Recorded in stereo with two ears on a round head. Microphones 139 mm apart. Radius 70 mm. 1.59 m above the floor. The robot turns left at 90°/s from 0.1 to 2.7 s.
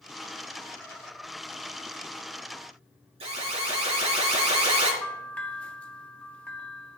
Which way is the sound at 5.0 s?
10° left (ahead or behind).